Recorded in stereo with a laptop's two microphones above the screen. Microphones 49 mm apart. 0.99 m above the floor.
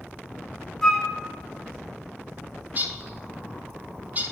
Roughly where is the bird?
Right.